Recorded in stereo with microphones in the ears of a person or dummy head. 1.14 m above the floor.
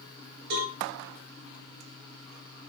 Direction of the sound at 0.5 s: 65° right (ahead or behind).